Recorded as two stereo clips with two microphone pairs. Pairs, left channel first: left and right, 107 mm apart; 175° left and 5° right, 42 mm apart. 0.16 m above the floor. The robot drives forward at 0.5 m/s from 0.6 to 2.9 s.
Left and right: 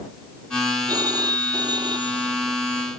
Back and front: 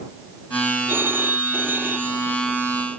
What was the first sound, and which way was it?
A phone ringing, 35° right.